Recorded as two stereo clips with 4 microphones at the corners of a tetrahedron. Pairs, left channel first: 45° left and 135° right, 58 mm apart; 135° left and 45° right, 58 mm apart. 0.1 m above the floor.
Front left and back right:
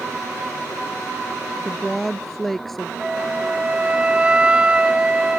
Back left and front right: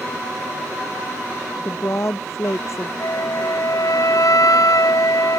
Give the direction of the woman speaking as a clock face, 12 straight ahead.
8 o'clock.